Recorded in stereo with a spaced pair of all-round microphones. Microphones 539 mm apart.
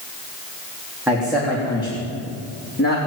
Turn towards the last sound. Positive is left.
turn(degrees=25)  # may be behind; listen again after turning